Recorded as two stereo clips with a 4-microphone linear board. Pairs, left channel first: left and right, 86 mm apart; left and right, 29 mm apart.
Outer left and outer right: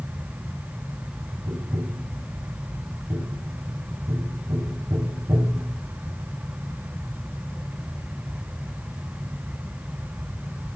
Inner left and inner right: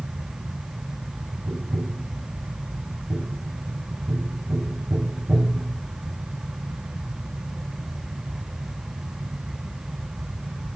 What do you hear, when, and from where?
1.5 s tapping: 70° right (ahead or behind), 2 m